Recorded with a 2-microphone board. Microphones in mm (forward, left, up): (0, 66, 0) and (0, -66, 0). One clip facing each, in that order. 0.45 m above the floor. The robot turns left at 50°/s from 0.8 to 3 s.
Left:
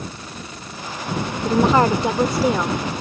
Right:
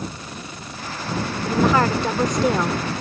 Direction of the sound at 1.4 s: 55° left.